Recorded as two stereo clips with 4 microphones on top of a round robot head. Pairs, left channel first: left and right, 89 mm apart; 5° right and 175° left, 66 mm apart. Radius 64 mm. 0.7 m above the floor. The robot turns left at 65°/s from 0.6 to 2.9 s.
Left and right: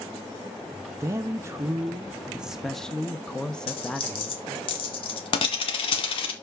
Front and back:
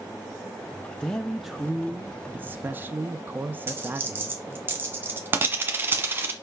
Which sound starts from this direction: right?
A man speaking, at 1.0 s.